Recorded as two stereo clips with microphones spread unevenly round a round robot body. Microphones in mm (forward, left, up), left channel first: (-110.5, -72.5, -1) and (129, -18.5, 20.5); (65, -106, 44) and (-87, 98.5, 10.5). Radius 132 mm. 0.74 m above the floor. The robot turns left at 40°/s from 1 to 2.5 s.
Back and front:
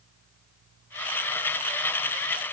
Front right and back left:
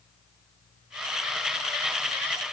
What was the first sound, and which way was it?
Only background noise.